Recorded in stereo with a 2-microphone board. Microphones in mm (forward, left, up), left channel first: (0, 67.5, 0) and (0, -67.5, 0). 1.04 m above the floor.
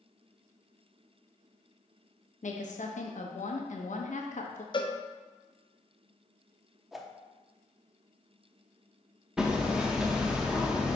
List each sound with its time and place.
2.4 s a woman speaking: 65° left (ahead or behind), 1.1 m
4.7 s a cowbell: 35° left (ahead or behind), 0.6 m
6.9 s a whoosh: centre (ahead or behind), 0.6 m
9.4 s hammering: 5° right (ahead or behind), 0.9 m